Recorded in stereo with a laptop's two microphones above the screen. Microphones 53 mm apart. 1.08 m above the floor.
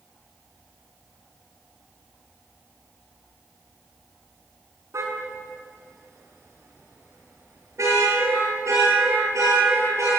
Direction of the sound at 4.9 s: 80° right.